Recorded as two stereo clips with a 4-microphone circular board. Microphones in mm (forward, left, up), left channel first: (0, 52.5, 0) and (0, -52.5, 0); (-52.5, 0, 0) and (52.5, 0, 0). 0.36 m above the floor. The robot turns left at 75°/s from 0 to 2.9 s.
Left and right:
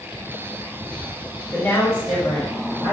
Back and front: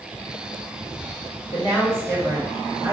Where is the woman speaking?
160° left, 1.9 m; by 2.9 s 55° left, 1.9 m.